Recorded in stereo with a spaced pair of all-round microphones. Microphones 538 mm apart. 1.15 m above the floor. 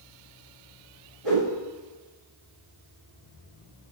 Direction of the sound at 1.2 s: 85° right.